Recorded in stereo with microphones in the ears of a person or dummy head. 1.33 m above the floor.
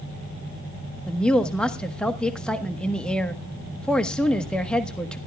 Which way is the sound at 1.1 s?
10° left (ahead or behind).